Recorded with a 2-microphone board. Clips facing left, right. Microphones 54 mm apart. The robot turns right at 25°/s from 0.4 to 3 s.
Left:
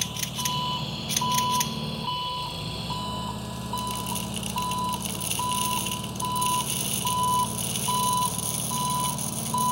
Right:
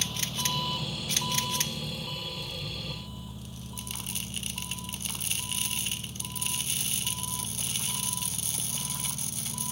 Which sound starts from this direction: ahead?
An engine running, at 0.0 s.